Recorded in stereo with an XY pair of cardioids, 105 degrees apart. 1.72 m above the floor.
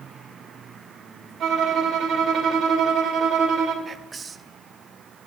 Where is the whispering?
35° right, 0.7 m.